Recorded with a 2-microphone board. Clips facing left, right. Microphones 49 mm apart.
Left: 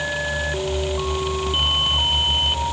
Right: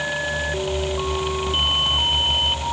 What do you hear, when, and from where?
Only background noise.